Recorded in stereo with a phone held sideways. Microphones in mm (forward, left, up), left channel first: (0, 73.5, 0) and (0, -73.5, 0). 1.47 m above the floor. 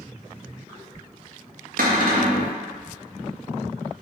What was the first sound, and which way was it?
A cupboard door, 75° right (ahead or behind).